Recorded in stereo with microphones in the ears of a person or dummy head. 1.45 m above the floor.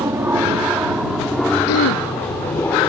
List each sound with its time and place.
0.0 s an aircraft: 15° right (ahead or behind); by 2.9 s 10° left (ahead or behind)
1.7 s throat clearing: 70° left (ahead or behind)